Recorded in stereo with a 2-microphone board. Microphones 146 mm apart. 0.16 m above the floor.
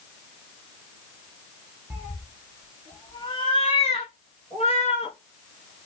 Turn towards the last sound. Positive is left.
turn(degrees=45)  # may be behind; listen again after turning